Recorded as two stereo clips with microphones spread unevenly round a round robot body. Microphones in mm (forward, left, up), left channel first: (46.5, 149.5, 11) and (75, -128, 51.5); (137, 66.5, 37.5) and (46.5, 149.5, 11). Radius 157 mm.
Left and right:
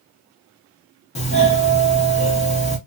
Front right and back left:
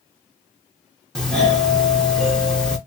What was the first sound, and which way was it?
A doorbell, 55° left.